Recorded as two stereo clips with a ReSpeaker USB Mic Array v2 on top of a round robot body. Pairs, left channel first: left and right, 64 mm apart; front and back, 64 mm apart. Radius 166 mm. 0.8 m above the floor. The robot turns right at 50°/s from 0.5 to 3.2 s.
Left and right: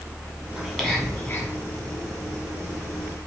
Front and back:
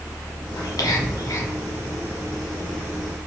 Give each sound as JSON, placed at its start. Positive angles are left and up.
{"t": 0.6, "sound": "whispering", "azimuth_deg": -5, "distance_m": 1.6}